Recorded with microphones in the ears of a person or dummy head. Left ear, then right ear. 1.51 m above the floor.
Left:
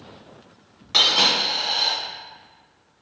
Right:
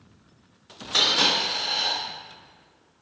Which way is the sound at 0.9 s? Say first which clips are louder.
Left 3 dB; 15° left (ahead or behind).